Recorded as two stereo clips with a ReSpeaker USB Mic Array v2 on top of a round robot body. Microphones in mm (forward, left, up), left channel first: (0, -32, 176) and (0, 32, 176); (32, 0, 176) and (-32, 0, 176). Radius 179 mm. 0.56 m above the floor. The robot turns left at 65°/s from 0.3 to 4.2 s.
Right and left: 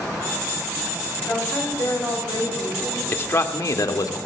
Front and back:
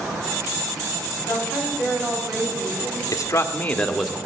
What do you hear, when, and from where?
1.2 s a woman speaking: 35° right, 4.5 m; by 3.0 s 150° right, 4.5 m
3.1 s a man speaking: 30° right, 1.5 m; by 4.3 s 100° right, 1.5 m